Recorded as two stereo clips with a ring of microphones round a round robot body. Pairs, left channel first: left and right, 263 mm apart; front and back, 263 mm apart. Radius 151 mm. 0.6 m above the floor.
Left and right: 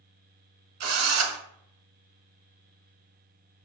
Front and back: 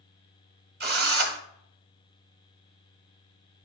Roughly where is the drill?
Behind right.